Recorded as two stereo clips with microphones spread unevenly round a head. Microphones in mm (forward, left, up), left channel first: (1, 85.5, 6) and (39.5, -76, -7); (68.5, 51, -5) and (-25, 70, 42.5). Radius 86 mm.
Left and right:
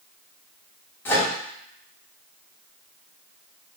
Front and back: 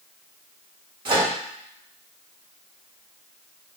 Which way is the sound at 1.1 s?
175° left.